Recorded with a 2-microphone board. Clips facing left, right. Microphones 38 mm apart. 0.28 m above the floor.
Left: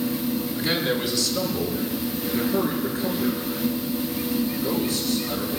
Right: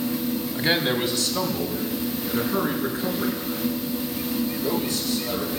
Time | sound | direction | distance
0.6 | a man speaking | 40° right (ahead or behind) | 2 m